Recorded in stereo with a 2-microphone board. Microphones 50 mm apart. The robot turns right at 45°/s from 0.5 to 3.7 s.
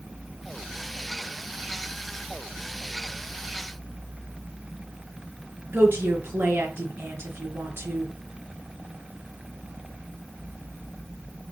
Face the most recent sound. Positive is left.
turn(degrees=-55)  # may be behind; listen again after turning